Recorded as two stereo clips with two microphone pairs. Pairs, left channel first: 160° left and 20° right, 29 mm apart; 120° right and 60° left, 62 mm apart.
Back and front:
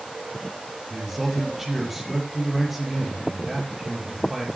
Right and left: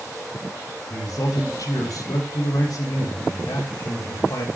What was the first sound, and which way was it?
A man speaking, 95° right.